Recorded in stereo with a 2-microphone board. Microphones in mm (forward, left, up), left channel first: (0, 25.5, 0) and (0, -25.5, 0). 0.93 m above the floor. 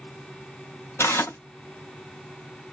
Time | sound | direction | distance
1.0 | tearing paper | 55° left (ahead or behind) | 0.6 m